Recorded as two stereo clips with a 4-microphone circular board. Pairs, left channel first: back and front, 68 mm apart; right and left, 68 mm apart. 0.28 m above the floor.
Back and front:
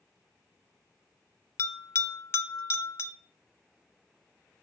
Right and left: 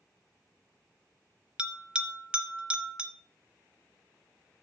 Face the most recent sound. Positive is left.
turn(degrees=160)